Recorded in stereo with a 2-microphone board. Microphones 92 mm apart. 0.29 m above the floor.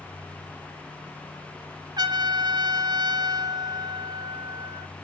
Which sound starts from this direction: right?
A trumpet, at 2.0 s.